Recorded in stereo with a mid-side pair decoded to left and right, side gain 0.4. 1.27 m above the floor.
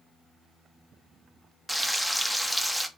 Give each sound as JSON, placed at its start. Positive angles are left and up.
{"t": 1.7, "sound": "frying", "azimuth_deg": 0, "distance_m": 0.6}